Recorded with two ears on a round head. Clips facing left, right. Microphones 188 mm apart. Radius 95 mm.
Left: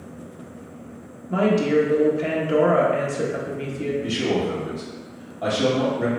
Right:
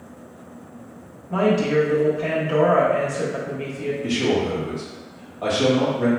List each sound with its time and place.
1.3 s a woman speaking: 25° left (ahead or behind), 0.9 m
4.0 s a man speaking: 15° left (ahead or behind), 1.3 m